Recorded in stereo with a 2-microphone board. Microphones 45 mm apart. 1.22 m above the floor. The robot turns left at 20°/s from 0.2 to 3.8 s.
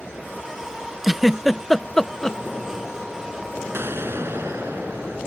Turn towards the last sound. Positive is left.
turn(degrees=-65)  # may be behind; listen again after turning